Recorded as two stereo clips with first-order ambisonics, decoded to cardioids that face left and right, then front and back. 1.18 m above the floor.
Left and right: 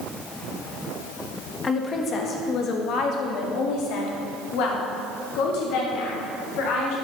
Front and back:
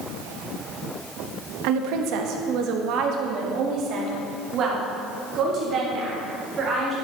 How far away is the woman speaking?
About 1.6 m.